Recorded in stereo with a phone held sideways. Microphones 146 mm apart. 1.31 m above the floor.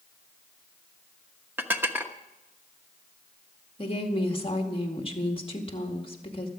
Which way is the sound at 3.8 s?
40° left (ahead or behind).